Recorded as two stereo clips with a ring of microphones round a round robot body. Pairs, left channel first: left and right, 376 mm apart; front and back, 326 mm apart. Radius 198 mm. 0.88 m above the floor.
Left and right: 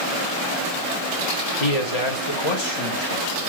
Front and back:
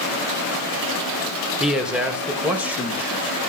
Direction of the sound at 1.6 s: 90° left.